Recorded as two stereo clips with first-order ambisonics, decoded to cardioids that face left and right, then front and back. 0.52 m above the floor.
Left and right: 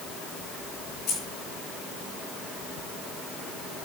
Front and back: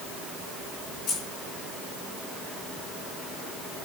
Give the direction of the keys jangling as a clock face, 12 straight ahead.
11 o'clock.